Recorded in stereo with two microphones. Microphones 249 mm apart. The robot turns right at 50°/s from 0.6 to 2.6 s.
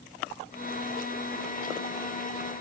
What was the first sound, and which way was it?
Only background noise.